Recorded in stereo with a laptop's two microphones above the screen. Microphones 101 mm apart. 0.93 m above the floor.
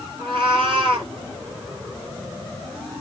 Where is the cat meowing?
60° right (ahead or behind), 1.7 m.